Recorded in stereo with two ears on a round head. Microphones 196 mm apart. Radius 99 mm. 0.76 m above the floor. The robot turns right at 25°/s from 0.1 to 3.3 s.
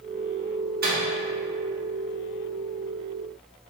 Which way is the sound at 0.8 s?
45° right (ahead or behind).